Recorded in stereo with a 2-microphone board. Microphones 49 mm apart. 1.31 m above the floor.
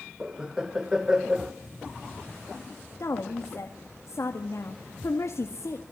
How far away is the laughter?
About 1.7 m.